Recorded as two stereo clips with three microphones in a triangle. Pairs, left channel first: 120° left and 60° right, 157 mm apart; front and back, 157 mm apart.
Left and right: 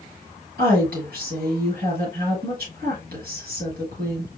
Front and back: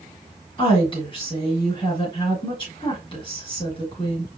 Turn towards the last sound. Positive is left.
turn(degrees=-60)